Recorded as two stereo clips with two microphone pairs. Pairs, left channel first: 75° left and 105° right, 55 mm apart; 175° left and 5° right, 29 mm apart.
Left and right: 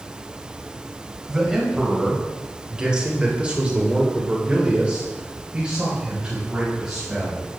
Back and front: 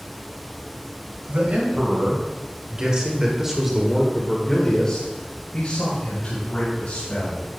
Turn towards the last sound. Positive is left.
turn(degrees=180)